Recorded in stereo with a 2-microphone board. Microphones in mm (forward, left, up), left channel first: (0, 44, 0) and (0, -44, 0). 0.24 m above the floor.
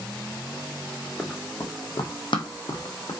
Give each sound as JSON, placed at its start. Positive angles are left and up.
{"t": 1.2, "sound": "running footsteps", "side_deg": 10, "distance_m": 0.8}